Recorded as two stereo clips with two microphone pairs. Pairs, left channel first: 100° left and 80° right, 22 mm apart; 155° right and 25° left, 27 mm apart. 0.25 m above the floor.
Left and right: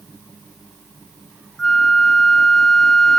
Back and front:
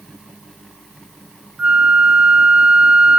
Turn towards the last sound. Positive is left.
turn(degrees=40)